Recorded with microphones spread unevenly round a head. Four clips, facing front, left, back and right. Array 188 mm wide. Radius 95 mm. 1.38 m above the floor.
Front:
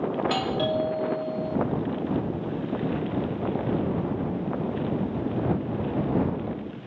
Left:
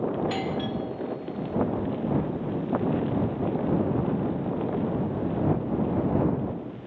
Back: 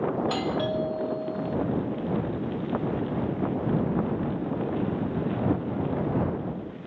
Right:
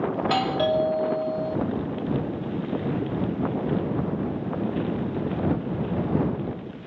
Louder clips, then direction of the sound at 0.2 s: Right 5 dB, front 1 dB; 80° right.